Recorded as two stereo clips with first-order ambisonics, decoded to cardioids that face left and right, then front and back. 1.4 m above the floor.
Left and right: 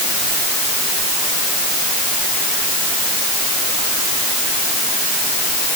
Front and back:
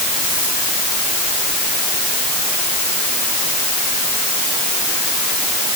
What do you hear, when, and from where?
Only background noise.